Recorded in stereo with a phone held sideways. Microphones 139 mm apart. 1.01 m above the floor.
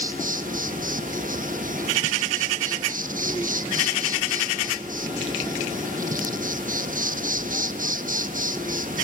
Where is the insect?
80° right, 1.0 m.